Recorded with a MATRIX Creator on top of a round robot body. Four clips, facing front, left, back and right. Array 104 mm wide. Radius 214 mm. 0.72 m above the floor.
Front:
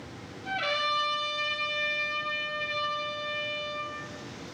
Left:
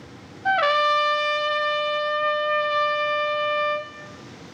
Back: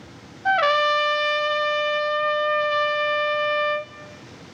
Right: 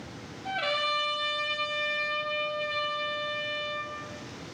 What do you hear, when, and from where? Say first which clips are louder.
0.5 s a trumpet: left 11 dB, back 12 dB; 140° left, 0.5 m